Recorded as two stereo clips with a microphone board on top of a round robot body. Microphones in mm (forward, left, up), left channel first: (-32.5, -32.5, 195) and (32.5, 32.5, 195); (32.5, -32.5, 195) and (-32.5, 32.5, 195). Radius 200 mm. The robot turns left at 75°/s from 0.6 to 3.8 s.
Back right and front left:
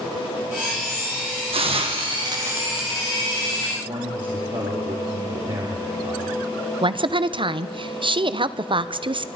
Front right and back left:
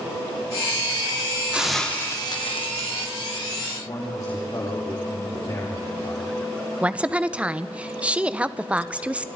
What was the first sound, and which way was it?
A hiss, 60° left.